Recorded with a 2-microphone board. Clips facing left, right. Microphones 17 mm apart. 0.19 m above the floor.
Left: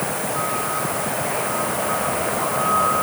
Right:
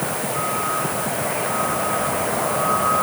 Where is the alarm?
No alarm in this recording.